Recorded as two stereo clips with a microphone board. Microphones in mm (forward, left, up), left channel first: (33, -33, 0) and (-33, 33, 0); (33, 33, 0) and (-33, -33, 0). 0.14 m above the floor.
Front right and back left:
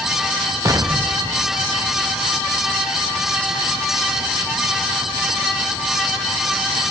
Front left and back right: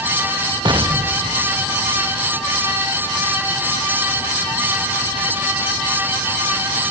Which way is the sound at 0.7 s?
175° right.